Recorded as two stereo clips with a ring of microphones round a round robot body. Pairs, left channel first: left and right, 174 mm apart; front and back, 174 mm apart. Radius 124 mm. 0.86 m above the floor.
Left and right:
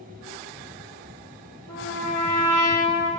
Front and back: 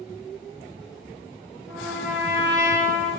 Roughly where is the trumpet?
Left.